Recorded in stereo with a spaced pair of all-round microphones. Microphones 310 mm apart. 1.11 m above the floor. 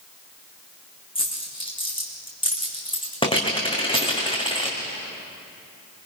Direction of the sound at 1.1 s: 15° left (ahead or behind).